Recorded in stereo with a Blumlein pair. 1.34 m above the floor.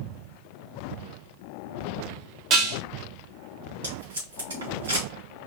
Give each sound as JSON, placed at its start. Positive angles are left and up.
{"t": 2.5, "sound": "dishes clattering", "azimuth_deg": -40, "distance_m": 1.3}
{"t": 3.8, "sound": "tape being pulled", "azimuth_deg": -65, "distance_m": 3.0}